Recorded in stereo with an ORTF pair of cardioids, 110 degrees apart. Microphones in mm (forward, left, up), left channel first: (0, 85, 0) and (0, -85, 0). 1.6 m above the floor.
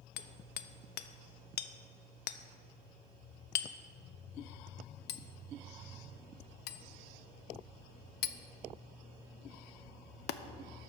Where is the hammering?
65° left, 0.6 m.